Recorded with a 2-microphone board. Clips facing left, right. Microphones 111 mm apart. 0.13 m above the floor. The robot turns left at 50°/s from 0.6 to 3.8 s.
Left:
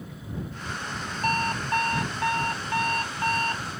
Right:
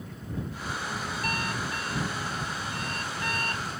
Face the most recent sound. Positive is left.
turn(degrees=15)